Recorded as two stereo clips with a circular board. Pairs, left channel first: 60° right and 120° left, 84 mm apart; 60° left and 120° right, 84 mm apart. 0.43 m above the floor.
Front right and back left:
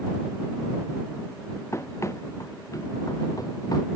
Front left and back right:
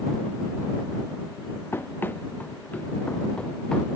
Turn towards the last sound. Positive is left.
turn(degrees=-20)